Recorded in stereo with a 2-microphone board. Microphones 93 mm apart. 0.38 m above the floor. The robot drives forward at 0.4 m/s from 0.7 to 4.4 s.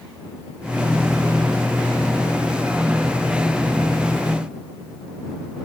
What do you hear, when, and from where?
Only background noise.